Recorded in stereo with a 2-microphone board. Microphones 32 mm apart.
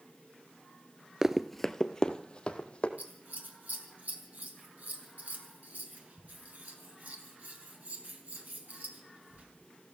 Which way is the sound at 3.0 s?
60° right (ahead or behind).